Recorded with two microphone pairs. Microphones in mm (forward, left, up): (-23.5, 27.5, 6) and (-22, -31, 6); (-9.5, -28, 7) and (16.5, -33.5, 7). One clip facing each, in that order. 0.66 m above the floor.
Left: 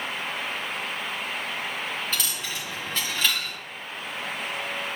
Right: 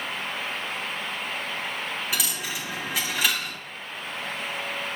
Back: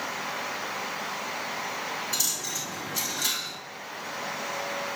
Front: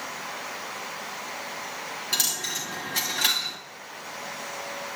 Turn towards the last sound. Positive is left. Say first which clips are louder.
# right 1 dB, front 3 dB
turn(degrees=-10)